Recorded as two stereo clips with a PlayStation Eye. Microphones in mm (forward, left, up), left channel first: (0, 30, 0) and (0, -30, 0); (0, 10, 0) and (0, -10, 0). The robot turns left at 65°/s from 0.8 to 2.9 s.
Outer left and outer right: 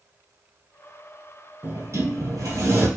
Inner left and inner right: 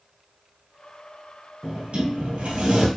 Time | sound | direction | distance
1.6 | a sliding door | 45° right | 2.5 m